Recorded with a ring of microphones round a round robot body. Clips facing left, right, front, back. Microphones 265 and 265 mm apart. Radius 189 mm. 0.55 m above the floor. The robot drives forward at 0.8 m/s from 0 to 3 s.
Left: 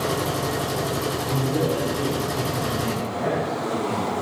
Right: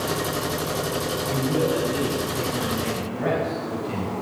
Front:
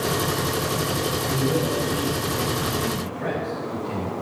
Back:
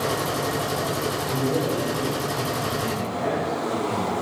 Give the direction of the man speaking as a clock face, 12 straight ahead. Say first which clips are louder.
Right 1 dB, even; 1 o'clock.